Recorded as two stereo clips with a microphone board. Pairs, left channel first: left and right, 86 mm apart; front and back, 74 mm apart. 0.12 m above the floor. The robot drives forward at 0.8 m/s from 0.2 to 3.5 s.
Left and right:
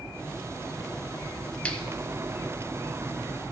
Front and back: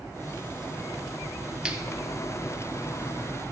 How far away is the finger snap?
About 0.9 m.